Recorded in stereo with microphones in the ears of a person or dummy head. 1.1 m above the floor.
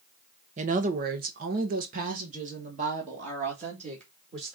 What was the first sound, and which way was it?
A woman speaking, 30° right (ahead or behind).